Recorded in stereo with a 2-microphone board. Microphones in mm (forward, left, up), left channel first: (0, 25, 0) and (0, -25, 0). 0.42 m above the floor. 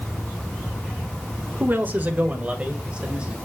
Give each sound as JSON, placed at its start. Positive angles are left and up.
{"t": 1.6, "sound": "a man speaking", "side_deg": -40, "distance_m": 1.3}